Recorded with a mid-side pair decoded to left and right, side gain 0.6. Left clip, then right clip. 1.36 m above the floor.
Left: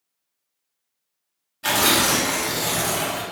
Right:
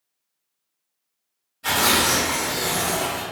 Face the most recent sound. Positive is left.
turn(degrees=40)